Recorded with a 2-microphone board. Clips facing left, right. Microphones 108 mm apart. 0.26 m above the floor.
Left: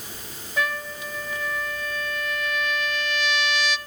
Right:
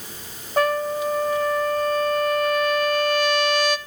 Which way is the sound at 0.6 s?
45° right (ahead or behind).